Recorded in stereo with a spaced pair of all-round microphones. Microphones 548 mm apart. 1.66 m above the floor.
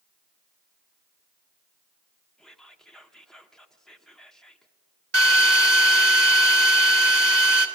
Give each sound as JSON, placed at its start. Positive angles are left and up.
{"t": 2.4, "sound": "whispering", "side_deg": 0, "distance_m": 0.9}
{"t": 5.1, "sound": "a drill", "side_deg": -50, "distance_m": 1.4}